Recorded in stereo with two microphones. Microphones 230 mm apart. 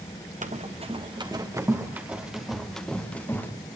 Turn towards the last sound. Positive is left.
turn(degrees=10)  # may be behind; listen again after turning